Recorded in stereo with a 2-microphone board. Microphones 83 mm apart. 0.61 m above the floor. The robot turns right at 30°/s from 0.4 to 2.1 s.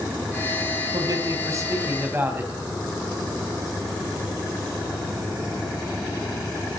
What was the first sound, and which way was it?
A man speaking, 60° right.